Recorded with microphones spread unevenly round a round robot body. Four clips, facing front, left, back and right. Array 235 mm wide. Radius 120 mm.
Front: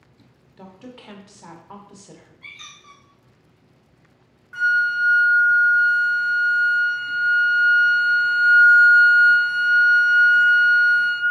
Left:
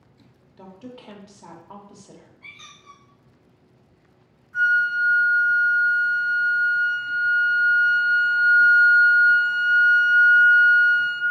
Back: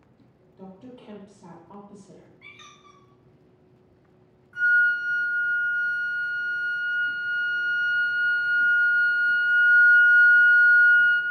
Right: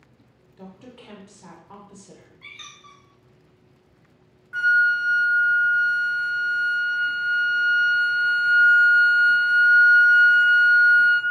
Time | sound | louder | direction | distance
0.6 | a woman speaking | left 3 dB, front 2 dB | 30° left | 0.7 m
2.4 | a squeak | right 1 dB, front 4 dB | 135° right | 0.6 m
4.5 | a flute | right 1 dB, front 1 dB | 45° right | 0.7 m